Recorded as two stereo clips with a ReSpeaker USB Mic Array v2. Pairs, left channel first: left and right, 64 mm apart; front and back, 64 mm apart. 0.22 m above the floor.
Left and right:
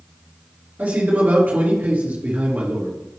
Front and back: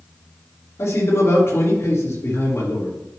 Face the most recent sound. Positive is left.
turn(degrees=-35)